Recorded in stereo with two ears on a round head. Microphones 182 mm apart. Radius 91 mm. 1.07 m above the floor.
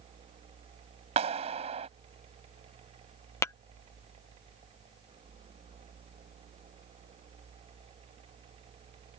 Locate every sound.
1.2 s a clap: 30° right (ahead or behind)
3.4 s tapping: 15° left (ahead or behind)